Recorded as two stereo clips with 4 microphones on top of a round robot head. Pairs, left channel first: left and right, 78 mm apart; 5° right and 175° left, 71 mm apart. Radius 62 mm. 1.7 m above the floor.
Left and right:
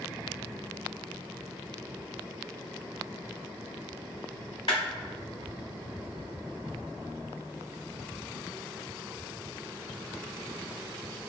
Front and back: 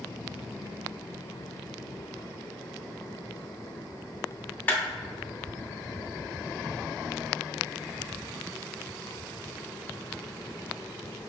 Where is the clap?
50° left, 1.0 m.